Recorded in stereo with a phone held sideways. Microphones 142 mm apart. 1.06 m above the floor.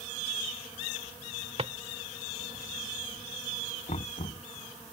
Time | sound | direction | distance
1.6 | a drawer | 45° right (ahead or behind) | ?
3.9 | knocking | 55° left (ahead or behind) | ?